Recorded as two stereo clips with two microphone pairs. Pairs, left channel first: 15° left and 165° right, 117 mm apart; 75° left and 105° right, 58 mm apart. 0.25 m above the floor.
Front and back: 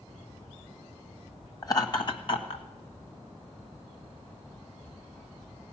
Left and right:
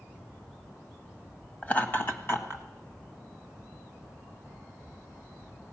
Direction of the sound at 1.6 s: 35° left.